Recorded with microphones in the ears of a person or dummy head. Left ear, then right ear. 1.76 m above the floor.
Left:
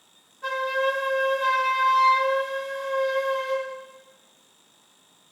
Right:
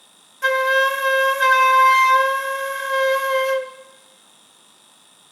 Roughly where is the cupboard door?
I don't hear a cupboard door.